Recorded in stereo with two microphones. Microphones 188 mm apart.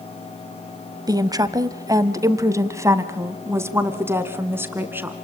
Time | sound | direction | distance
1.1 | a woman speaking | 20° right (ahead or behind) | 1.1 m